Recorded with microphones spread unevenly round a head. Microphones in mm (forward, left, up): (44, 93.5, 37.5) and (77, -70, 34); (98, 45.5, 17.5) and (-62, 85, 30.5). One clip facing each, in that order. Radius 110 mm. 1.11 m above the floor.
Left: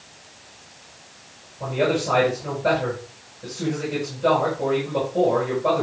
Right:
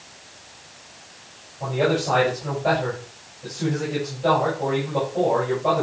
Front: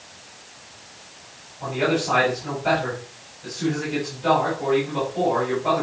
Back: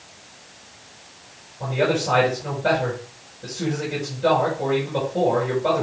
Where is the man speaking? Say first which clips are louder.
Even, back 1 dB; 155° left, 8.5 m.